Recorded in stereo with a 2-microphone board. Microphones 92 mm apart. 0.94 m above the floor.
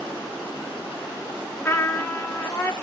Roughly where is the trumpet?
Left.